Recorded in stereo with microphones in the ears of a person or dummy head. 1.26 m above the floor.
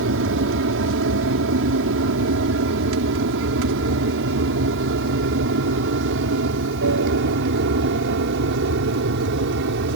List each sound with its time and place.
0.0 s an aircraft: 65° right (ahead or behind)